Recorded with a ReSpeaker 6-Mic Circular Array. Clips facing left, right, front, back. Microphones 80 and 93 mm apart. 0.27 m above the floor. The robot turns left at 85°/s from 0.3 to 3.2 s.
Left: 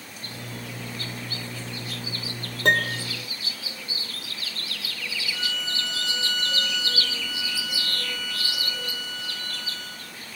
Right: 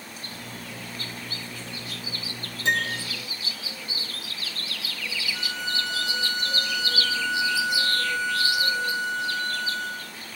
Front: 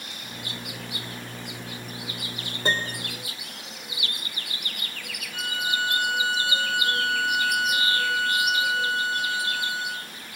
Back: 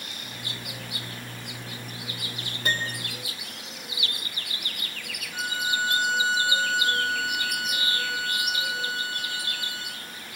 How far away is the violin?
About 6 m.